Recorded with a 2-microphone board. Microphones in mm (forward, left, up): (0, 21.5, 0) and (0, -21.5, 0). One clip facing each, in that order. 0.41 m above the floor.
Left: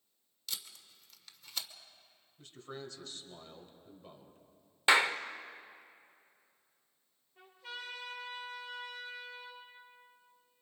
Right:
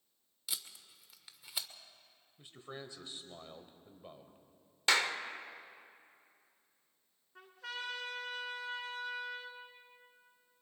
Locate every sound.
0.5 s tape being pulled: 10° right (ahead or behind), 1.1 m
2.4 s a man speaking: 15° right (ahead or behind), 1.8 m
4.9 s a clap: 20° left (ahead or behind), 0.7 m
7.3 s a trumpet: 80° right, 3 m